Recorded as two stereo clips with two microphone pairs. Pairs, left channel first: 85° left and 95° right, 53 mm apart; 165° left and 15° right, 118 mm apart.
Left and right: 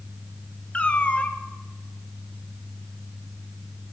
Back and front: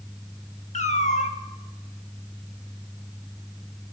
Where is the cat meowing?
145° left, 0.5 m.